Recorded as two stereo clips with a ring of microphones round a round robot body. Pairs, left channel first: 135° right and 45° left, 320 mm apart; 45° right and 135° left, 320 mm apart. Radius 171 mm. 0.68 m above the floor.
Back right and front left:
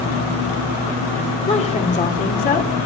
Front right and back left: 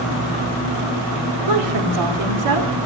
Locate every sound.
1.5 s a woman speaking: 155° left, 2 m; by 2.9 s 165° left, 2.5 m